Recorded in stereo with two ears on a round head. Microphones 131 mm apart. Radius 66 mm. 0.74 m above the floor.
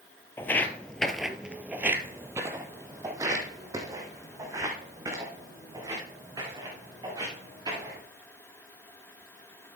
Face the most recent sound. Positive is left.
turn(degrees=-25)  # may be behind; listen again after turning